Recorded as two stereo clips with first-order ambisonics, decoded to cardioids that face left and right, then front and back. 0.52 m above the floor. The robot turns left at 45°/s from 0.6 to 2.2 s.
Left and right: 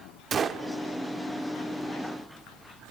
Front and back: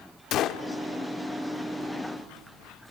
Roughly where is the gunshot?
Ahead right.